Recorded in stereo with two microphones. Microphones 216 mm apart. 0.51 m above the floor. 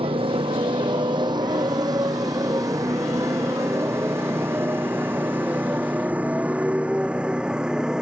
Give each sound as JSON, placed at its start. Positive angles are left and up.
{"t": 0.0, "sound": "a motorcycle", "side_deg": -25}